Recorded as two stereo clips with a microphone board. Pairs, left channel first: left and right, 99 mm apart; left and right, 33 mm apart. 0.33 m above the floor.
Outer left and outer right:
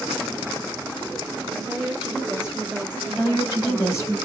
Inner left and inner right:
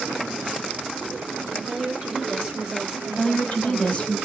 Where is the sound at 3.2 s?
30° left (ahead or behind), 2 m.